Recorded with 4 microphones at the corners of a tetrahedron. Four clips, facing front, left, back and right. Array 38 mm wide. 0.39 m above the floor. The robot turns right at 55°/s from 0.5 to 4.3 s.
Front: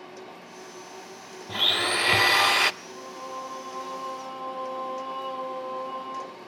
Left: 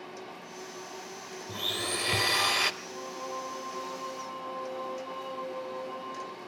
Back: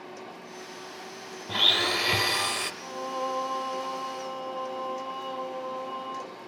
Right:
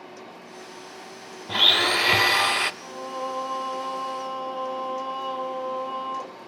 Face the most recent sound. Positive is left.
turn(degrees=-75)